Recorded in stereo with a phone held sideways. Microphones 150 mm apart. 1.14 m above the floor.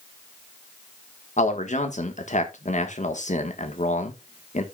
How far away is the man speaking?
About 1.4 m.